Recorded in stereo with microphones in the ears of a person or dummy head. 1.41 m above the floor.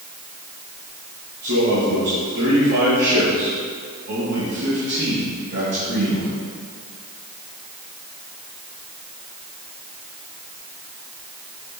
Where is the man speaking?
55° right (ahead or behind), 2 m.